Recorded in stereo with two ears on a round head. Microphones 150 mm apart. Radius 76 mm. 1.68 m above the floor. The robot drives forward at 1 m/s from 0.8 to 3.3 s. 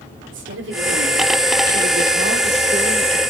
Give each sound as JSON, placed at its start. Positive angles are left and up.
{"t": 0.3, "sound": "a woman speaking", "side_deg": -80, "distance_m": 6.5}